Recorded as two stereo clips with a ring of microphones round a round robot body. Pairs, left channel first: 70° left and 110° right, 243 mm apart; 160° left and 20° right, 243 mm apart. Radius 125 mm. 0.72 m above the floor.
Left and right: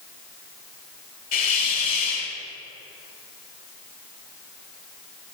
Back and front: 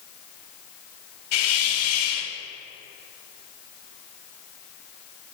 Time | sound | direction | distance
1.3 | a hiss | 125° left | 1.3 m